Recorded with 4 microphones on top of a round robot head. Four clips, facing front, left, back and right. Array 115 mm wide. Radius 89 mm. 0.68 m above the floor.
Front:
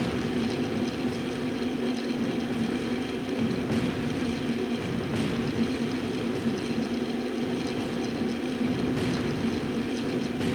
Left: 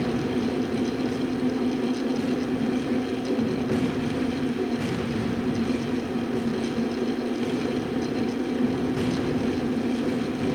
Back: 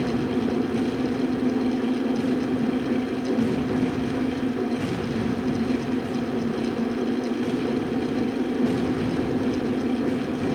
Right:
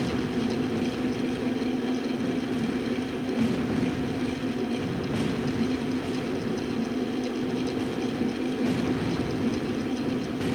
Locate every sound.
Only background noise.